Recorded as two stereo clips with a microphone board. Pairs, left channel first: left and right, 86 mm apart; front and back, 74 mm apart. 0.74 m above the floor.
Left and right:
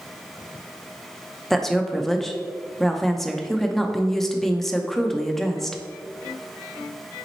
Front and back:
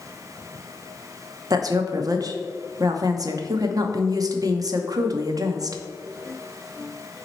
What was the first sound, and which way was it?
A woman speaking, 175° left.